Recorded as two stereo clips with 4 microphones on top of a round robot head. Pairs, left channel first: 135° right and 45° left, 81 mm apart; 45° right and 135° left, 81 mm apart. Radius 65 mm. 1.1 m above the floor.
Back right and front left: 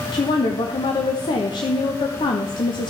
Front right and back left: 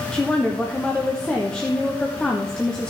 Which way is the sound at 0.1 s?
125° right.